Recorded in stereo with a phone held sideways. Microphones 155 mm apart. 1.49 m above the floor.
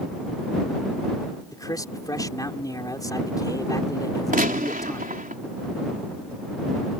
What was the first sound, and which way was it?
A man speaking, 20° left (ahead or behind).